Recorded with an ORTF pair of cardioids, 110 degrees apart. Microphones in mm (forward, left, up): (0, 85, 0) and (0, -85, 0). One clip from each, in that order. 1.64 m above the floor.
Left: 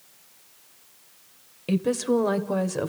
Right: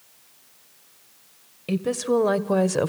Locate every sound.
1.7 s a woman speaking: 5° left, 1.3 m; by 2.9 s 35° right, 1.0 m